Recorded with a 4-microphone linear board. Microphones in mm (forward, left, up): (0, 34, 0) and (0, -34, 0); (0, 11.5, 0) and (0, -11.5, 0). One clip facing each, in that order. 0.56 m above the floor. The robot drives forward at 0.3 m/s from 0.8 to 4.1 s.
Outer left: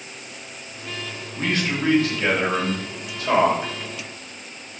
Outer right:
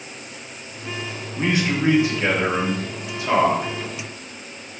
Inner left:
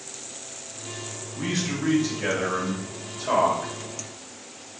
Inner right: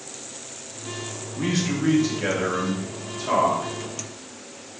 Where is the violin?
I don't hear a violin.